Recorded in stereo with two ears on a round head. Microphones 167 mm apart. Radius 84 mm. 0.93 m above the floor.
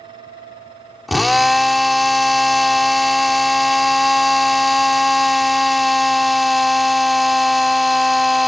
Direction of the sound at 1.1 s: Centre (ahead or behind).